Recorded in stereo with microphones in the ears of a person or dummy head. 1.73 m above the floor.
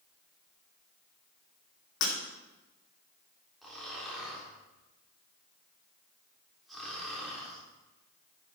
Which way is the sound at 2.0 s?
70° left (ahead or behind).